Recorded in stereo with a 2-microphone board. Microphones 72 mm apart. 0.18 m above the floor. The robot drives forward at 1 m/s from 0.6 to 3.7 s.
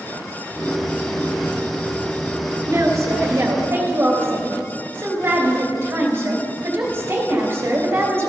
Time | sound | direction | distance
2.6 | a woman speaking | 50° right (ahead or behind) | 2.5 m